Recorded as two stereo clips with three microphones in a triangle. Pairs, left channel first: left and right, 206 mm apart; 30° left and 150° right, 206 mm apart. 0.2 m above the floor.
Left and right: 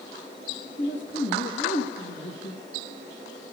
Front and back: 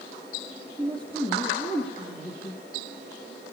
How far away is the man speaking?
About 3 m.